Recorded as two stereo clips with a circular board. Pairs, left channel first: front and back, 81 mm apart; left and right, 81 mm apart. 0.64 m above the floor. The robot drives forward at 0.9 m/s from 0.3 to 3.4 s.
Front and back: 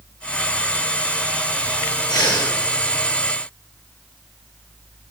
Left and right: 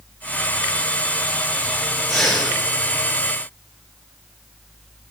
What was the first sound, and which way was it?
Breathing, straight ahead.